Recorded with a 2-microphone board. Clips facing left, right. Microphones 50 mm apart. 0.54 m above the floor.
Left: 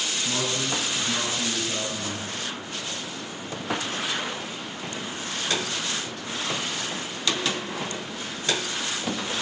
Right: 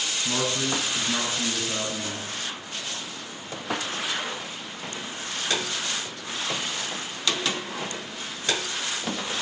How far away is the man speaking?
About 6.5 m.